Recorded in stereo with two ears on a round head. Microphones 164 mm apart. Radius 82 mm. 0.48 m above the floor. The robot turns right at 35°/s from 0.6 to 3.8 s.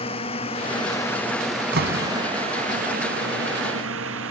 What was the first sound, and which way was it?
A drone, 30° left (ahead or behind).